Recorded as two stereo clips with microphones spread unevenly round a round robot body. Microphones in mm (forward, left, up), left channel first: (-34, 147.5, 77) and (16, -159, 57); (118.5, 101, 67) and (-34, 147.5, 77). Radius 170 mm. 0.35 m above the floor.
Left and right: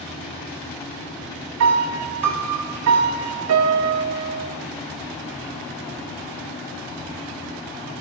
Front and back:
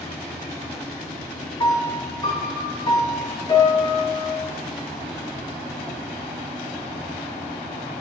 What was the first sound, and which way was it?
A piano, 70° right.